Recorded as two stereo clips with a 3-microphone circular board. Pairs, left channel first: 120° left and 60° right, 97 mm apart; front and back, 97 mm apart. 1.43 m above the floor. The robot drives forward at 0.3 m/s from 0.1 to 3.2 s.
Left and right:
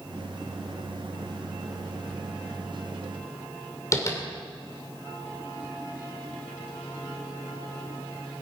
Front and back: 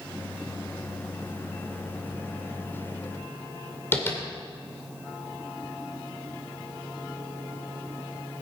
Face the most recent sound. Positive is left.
turn(degrees=65)